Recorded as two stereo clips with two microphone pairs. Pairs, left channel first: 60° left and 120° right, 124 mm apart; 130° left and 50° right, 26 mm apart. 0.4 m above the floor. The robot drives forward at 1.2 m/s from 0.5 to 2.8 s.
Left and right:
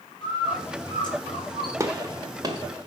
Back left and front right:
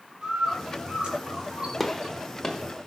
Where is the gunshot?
145° right, 1.2 m; by 2.9 s 170° right, 2 m.